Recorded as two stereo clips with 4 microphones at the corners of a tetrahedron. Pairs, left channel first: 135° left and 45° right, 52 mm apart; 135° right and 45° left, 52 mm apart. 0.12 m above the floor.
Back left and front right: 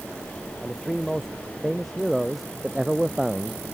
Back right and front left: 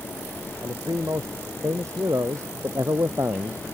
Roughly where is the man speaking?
Ahead left.